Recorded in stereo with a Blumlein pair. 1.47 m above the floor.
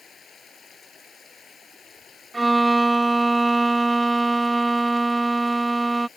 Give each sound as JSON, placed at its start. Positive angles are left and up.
{"t": 0.0, "sound": "running water", "azimuth_deg": 20}
{"t": 2.3, "sound": "a violin", "azimuth_deg": -5}